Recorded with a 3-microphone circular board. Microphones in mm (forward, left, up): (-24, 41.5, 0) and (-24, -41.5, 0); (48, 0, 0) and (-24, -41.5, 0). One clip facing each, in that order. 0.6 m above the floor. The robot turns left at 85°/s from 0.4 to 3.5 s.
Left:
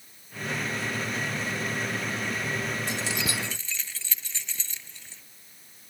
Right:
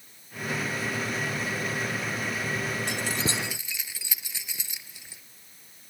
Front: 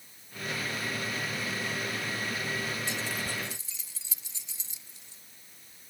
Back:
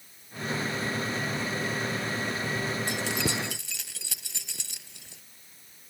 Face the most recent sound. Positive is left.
turn(degrees=-170)